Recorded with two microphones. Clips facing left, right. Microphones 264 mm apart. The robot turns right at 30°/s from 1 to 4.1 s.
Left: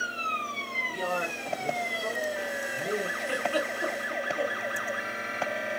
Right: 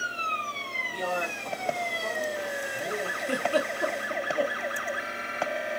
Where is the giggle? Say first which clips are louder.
Right 3 dB; 40° right (ahead or behind), 0.6 m; by 4.5 s 70° right (ahead or behind), 0.6 m.